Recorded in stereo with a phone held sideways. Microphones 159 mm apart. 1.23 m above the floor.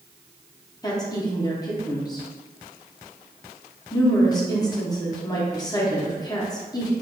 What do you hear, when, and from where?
0.8 s a woman speaking: 25° left (ahead or behind), 0.6 m